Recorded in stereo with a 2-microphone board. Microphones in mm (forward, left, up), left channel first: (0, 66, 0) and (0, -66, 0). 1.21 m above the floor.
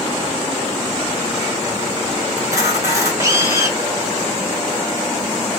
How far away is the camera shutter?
About 1.8 m.